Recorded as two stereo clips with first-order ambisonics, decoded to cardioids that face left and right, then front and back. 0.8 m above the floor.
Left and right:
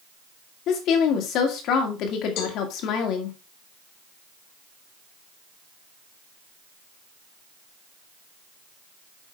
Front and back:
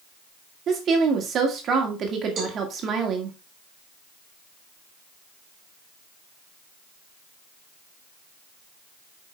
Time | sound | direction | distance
0.7 | a woman speaking | 125° left | 2 m
2.4 | a cowbell | 115° left | 2.5 m